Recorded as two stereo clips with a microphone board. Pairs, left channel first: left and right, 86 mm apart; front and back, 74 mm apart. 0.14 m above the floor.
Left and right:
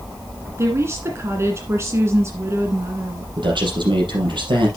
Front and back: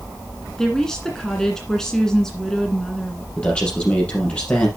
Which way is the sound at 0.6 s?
80° right.